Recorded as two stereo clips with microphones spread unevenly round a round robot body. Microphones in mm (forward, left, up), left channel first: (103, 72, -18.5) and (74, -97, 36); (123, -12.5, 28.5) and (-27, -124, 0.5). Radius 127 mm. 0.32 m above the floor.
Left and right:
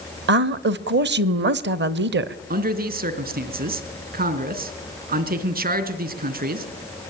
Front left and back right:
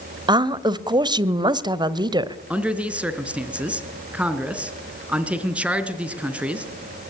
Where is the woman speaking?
95° right, 1.3 m.